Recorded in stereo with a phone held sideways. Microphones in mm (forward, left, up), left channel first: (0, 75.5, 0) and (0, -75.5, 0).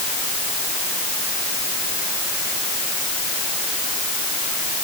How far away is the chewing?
No chewing in this recording.